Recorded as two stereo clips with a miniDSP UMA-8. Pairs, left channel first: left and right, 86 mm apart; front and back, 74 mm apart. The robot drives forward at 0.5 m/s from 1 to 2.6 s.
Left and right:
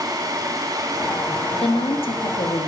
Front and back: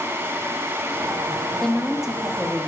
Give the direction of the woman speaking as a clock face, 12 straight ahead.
9 o'clock.